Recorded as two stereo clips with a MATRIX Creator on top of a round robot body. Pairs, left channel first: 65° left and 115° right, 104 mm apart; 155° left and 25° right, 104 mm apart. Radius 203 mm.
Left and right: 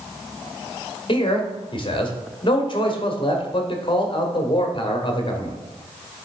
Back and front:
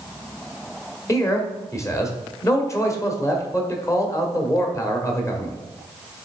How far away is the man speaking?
About 1.6 m.